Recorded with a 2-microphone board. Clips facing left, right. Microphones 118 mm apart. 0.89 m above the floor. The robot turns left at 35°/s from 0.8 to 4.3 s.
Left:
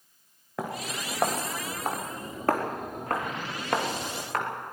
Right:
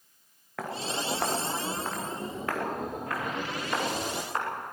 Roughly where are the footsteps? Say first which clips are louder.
Right 1 dB; centre.